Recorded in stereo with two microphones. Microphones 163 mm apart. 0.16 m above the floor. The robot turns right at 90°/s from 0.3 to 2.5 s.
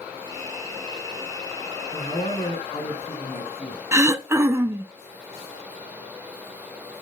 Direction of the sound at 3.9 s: 15° right (ahead or behind).